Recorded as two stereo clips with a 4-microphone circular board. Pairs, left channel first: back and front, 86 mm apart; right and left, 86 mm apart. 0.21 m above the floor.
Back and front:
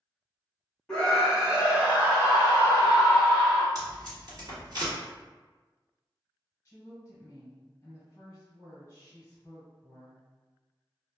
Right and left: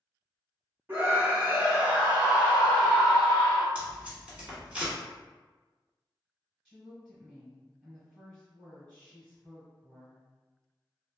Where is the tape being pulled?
20° left, 1.4 m.